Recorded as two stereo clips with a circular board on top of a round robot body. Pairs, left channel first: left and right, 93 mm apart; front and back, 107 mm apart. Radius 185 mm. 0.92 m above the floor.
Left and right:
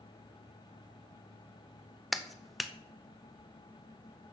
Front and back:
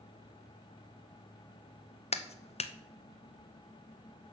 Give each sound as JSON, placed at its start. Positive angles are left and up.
{"t": 2.1, "sound": "a clap", "azimuth_deg": 0, "distance_m": 1.0}